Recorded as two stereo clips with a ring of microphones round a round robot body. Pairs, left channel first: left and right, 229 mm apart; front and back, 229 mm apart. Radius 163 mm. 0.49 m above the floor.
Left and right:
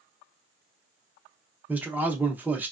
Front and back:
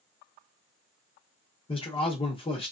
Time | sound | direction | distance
1.7 | a man speaking | 15° right | 0.7 m